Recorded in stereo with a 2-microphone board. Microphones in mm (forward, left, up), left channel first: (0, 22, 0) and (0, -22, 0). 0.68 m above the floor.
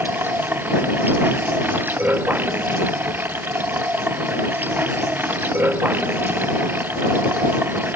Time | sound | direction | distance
0.0 | running water | 45° right (ahead or behind) | ?